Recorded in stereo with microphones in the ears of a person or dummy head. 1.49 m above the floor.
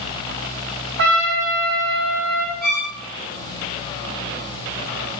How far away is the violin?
About 0.9 m.